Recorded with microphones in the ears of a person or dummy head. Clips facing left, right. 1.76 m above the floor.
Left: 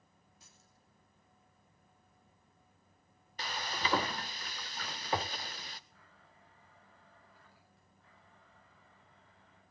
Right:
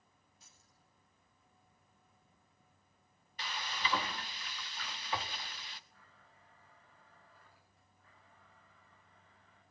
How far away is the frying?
About 0.6 m.